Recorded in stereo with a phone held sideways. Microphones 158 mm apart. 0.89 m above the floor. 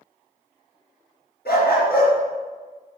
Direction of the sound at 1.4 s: 80° left.